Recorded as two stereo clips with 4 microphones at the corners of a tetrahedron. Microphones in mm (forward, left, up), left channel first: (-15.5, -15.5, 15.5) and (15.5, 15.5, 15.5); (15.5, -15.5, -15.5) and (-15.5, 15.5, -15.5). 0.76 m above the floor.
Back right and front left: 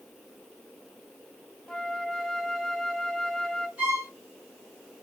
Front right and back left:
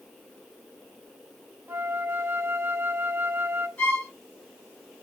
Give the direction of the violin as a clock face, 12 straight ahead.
12 o'clock.